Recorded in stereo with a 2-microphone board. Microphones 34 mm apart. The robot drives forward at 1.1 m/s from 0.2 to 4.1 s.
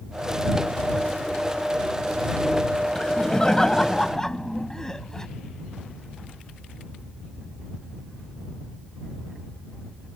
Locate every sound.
3.0 s laughter: 20° left (ahead or behind); by 5.3 s 15° left (ahead or behind)